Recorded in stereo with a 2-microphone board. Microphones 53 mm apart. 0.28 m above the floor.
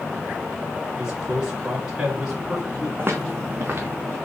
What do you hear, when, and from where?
1.0 s a man speaking: 15° right (ahead or behind), 3 m
3.0 s footsteps: 40° right (ahead or behind), 0.9 m